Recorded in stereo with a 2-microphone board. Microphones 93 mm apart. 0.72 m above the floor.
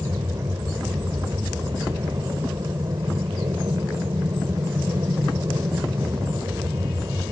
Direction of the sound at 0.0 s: 40° right (ahead or behind).